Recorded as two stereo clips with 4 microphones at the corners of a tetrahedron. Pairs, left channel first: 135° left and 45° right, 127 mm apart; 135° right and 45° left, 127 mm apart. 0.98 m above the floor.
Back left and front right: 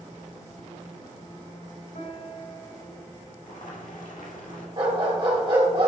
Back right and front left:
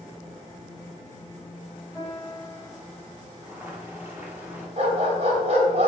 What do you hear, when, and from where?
1.9 s a piano: 135° left, 3.5 m
3.4 s boiling: 120° left, 2.0 m
4.8 s a dog barking: 10° left, 2 m